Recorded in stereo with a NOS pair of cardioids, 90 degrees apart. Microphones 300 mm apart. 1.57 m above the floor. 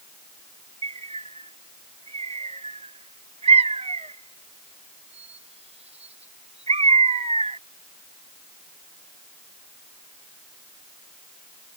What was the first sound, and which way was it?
A bird, 20° right.